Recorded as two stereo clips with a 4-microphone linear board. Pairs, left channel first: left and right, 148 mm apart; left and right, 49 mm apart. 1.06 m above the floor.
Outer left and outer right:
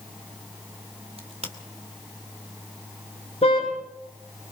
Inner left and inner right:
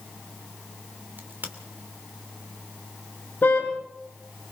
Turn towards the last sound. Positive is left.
turn(degrees=45)  # may be behind; listen again after turning